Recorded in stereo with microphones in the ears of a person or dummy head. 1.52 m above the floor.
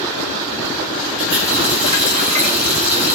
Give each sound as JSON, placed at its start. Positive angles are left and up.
{"t": 1.2, "sound": "a running tap", "side_deg": -40, "distance_m": 4.0}